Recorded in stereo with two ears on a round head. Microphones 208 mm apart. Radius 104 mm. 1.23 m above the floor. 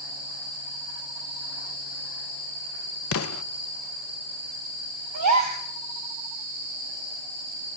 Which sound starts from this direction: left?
An explosion, at 3.1 s.